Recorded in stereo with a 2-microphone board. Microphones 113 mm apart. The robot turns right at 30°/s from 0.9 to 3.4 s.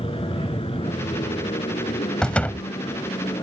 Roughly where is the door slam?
Centre.